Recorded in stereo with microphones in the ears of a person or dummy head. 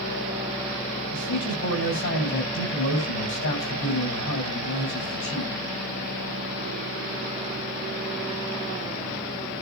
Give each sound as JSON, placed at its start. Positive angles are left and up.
{"t": 1.1, "sound": "a man speaking", "side_deg": 70, "distance_m": 8.0}